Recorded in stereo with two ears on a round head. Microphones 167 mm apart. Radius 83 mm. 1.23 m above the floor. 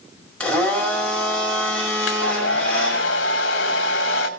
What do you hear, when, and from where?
0.4 s a blender: 5° left (ahead or behind), 5.5 m
2.0 s a hair dryer: 70° left (ahead or behind), 2 m